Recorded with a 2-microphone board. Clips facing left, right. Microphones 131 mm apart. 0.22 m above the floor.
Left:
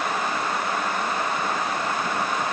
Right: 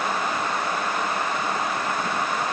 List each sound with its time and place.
Only background noise.